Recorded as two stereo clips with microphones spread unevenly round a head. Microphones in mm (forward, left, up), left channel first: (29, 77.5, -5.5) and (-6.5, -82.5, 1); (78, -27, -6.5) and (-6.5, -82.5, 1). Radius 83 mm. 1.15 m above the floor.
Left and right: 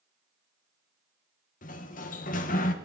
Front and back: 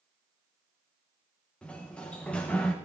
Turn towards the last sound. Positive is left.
turn(degrees=110)